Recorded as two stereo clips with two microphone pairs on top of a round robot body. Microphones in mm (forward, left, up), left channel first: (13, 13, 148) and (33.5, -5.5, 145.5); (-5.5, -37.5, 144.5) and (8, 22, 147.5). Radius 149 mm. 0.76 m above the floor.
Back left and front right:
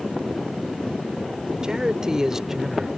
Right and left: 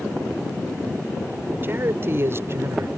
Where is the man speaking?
25° left; by 2.9 s 35° left.